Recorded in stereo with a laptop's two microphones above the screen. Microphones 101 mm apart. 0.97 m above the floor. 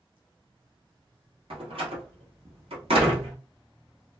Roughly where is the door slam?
Right.